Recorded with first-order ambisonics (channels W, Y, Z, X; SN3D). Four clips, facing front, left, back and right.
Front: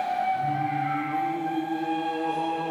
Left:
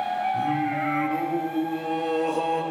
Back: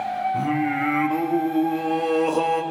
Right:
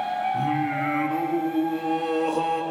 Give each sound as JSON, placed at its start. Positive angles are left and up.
{"t": 0.3, "sound": "singing", "azimuth_deg": -170, "distance_m": 1.7}